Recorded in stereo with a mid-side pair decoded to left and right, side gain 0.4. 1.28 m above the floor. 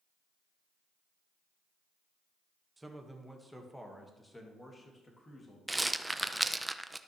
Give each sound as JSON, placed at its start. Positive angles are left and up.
{"t": 2.8, "sound": "a man speaking", "azimuth_deg": -15, "distance_m": 1.7}
{"t": 5.7, "sound": "a rattle", "azimuth_deg": -10, "distance_m": 0.6}